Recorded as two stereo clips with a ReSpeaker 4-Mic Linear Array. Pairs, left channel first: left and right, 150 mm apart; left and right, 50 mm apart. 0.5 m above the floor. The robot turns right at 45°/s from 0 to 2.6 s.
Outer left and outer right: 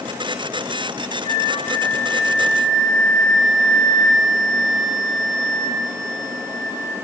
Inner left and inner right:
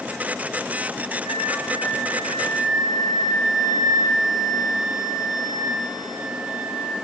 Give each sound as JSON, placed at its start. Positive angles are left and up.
{"t": 1.2, "sound": "a flute", "azimuth_deg": 140, "distance_m": 4.0}